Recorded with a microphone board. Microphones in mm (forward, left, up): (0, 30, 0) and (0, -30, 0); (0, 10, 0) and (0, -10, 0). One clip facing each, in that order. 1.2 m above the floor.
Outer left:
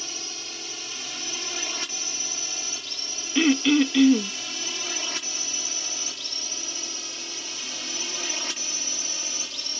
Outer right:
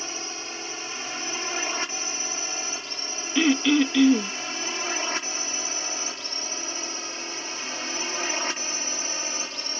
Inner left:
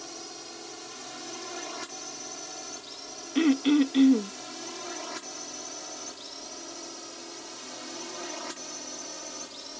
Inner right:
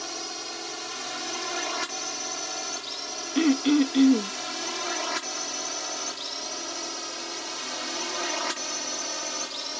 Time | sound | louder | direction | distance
0.0 | a drone | outer right 4 dB, inner right 7 dB | 35° right (ahead or behind) | ?
3.4 | throat clearing | outer left 1 dB, inner right 1 dB | 5° right (ahead or behind) | ?